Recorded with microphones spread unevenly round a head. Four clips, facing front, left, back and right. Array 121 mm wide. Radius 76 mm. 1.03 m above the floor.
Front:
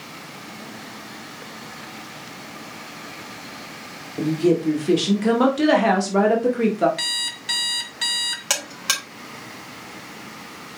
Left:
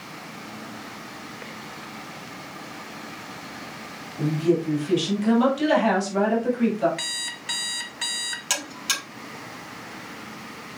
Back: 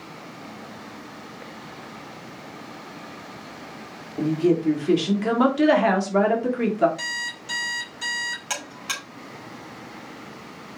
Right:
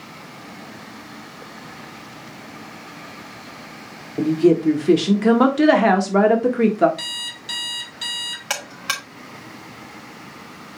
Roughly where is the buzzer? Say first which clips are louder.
Right 4 dB, front 4 dB; ahead right.